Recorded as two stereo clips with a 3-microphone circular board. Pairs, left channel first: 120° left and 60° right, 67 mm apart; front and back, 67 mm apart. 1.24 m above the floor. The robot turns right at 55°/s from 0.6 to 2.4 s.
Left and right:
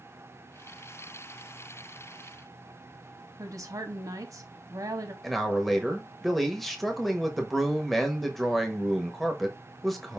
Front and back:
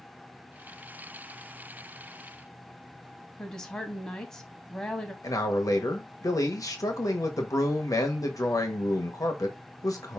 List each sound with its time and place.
3.4 s a woman speaking: 75° right, 0.9 m
5.2 s a man speaking: 30° left, 1.0 m